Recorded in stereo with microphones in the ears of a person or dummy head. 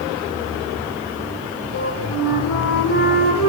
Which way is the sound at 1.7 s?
75° left (ahead or behind).